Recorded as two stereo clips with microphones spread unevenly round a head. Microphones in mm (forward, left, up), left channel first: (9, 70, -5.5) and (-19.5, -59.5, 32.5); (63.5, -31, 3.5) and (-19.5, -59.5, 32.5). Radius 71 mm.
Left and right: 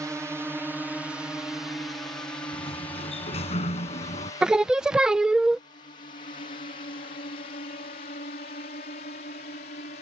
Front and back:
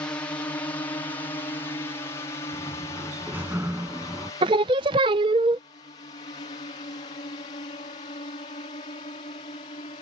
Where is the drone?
25° right; by 10.0 s 50° left.